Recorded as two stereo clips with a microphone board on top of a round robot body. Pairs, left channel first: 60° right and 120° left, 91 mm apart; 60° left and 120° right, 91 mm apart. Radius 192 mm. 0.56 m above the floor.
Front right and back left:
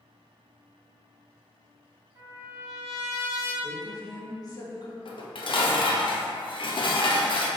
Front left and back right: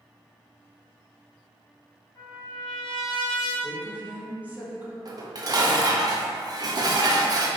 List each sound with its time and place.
2.1 s a trumpet: 75° left, 1.9 m
3.6 s a woman speaking: 55° right, 1.2 m
5.0 s dishes clattering: 80° right, 0.6 m